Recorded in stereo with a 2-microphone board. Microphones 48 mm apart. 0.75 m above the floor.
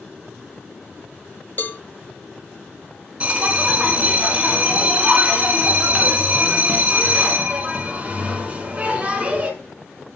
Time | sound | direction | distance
1.6 | a cowbell | 40° left (ahead or behind) | 0.9 m
3.2 | a bell | 25° right (ahead or behind) | 2 m